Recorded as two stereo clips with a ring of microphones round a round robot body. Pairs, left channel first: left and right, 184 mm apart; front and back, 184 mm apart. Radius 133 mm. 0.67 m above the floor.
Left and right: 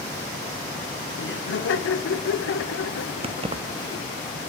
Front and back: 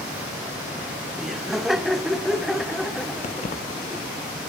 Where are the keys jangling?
45° right, 0.7 m.